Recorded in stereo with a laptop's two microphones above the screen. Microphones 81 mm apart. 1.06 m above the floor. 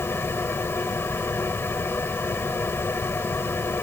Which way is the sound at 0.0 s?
30° left (ahead or behind).